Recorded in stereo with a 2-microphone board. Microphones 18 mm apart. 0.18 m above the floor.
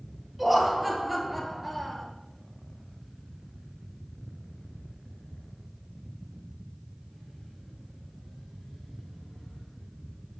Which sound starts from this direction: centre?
Laughter, at 0.4 s.